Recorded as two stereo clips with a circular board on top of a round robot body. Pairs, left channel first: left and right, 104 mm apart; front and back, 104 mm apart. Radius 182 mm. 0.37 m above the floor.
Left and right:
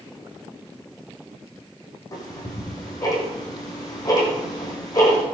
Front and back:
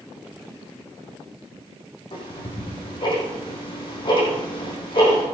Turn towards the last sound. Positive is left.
turn(degrees=40)